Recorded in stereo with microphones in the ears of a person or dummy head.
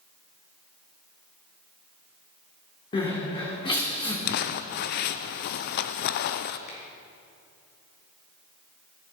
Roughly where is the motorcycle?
No motorcycle in this recording.